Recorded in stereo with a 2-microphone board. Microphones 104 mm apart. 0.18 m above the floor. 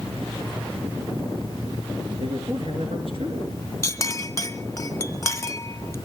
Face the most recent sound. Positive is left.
turn(degrees=30)  # may be behind; listen again after turning